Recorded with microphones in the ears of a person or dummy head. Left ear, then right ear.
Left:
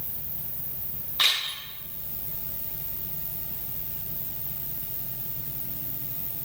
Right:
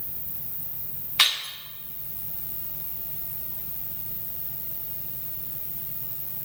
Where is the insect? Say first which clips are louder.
Left 2 dB; 30° right (ahead or behind), 1.2 m.